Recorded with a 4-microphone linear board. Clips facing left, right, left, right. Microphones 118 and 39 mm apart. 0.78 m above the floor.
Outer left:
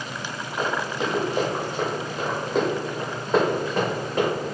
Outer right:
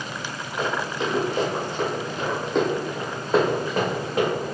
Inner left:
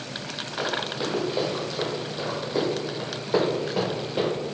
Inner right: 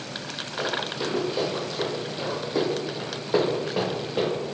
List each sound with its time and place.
0.6 s running footsteps: 30° left (ahead or behind), 1.5 m; by 4.3 s 5° right (ahead or behind), 3.5 m